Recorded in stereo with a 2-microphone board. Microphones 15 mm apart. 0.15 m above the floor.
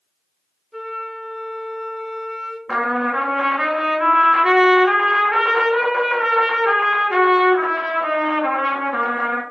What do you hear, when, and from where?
0.7 s a flute: 5° right (ahead or behind), 0.6 m
2.7 s a trumpet: 30° right (ahead or behind), 0.8 m